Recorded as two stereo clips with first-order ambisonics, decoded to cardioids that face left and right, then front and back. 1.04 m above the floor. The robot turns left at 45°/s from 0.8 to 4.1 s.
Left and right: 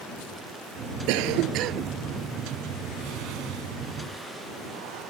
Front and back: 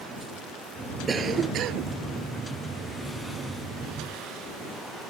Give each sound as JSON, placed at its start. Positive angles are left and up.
{"t": 1.1, "sound": "a cough", "azimuth_deg": -105}